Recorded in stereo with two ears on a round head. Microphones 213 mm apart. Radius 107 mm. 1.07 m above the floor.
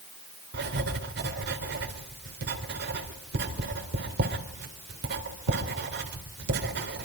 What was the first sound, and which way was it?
Writing, 50° right (ahead or behind).